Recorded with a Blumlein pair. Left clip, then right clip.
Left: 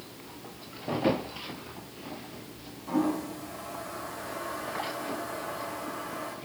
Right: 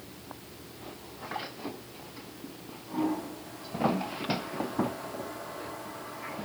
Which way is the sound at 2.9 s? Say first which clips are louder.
Left 3 dB; 60° left.